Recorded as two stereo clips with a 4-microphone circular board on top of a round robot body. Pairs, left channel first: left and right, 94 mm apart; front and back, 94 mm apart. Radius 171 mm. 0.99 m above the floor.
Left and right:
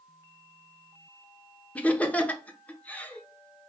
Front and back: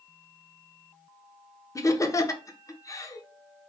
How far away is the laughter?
About 0.8 m.